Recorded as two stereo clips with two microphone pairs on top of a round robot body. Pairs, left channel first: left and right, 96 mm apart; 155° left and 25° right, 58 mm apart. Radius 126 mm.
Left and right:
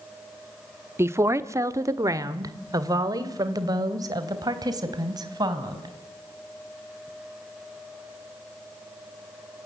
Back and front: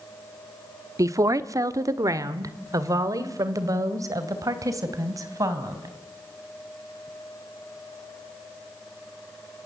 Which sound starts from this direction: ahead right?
A woman speaking, at 1.0 s.